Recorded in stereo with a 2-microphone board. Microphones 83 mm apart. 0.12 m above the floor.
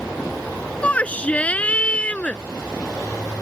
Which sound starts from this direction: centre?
A shout, at 0.8 s.